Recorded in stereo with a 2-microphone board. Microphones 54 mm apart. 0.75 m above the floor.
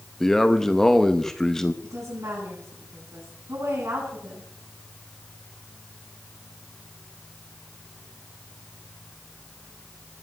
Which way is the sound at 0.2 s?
10° left (ahead or behind).